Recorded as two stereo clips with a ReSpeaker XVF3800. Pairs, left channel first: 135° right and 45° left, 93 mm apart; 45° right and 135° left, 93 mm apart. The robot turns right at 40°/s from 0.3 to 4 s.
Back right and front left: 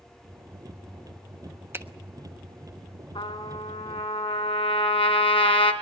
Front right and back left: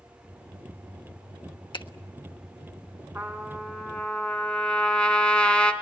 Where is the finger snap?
20° right, 1.2 m; by 1.9 s 15° right, 1.2 m.